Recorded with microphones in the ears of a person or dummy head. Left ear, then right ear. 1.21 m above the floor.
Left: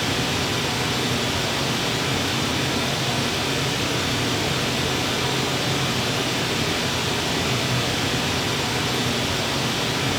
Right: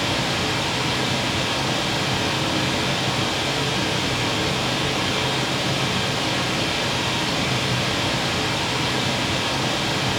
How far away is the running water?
About 1.7 m.